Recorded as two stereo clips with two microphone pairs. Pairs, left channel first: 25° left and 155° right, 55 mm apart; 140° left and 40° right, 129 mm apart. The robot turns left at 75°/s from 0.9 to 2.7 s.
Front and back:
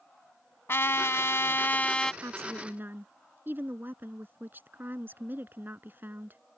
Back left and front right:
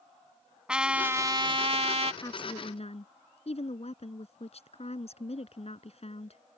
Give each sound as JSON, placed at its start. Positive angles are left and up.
{"t": 0.7, "sound": "a trumpet", "azimuth_deg": 45}
{"t": 2.2, "sound": "a woman speaking", "azimuth_deg": -160}